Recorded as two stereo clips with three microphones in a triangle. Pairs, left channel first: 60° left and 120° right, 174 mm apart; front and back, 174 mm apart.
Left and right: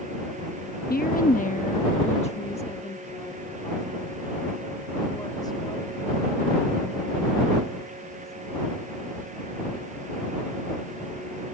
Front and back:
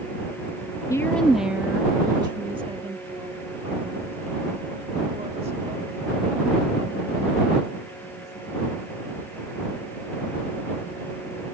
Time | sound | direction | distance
0.9 | a woman speaking | 70° left | ?